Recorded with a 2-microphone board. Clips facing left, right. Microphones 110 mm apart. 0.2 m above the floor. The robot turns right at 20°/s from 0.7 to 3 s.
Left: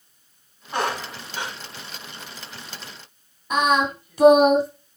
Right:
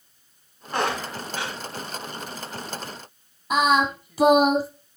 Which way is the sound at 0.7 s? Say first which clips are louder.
Even; centre (ahead or behind).